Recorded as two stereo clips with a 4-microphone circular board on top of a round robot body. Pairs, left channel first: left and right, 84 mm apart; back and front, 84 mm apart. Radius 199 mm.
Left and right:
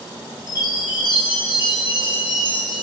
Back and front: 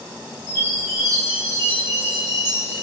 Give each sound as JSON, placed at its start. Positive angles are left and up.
{"t": 0.5, "sound": "a chime", "azimuth_deg": -125, "distance_m": 4.5}